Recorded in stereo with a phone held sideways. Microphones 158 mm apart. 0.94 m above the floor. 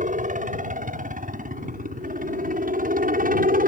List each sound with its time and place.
0.0 s a helicopter: 55° right (ahead or behind); by 3.7 s 65° right (ahead or behind)